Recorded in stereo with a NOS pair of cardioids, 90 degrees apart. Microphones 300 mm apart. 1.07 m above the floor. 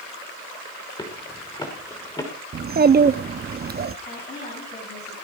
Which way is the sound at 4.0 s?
35° left.